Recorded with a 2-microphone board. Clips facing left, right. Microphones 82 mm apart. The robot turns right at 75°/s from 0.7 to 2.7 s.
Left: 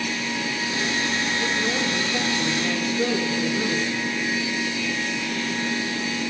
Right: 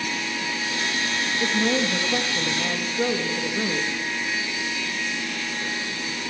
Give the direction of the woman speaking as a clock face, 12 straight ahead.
4 o'clock.